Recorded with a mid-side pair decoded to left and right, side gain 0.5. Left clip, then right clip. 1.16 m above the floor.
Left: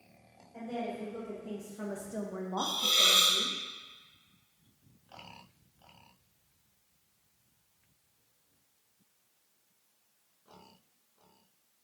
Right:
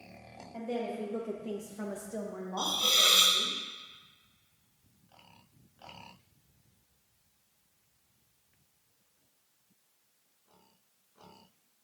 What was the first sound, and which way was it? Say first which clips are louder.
A woman speaking: right 2 dB; 60° right.